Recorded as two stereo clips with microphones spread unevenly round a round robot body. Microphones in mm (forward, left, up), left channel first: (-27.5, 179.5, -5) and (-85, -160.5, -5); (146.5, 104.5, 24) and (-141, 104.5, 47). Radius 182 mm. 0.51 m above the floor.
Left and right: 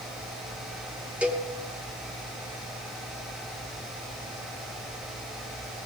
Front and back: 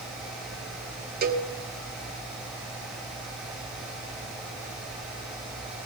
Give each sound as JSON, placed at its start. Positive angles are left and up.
{"t": 1.2, "sound": "a cowbell", "azimuth_deg": 180, "distance_m": 1.3}